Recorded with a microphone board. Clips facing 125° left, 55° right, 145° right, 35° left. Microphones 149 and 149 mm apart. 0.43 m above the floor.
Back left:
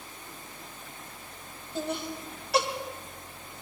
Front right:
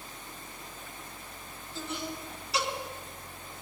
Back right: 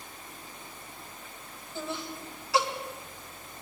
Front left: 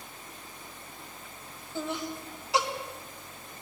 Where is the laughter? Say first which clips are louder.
Back left 5 dB, front left 3 dB; 105° left, 2.5 m.